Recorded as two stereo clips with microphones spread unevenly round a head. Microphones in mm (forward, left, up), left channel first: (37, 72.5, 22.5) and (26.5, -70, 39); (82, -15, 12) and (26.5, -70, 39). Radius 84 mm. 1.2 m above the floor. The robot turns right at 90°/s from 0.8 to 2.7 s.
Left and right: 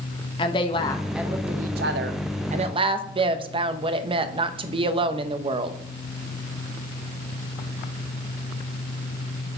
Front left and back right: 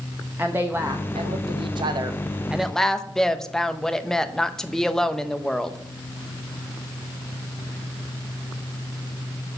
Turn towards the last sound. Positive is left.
turn(degrees=-40)